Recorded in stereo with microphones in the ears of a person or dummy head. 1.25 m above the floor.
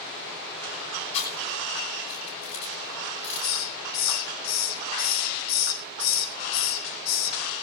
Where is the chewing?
35° left (ahead or behind), 9.5 m.